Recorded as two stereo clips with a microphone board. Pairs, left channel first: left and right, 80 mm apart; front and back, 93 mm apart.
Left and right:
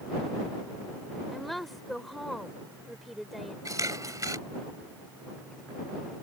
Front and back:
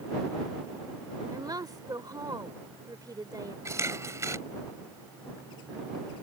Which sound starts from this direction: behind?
A woman speaking, at 1.3 s.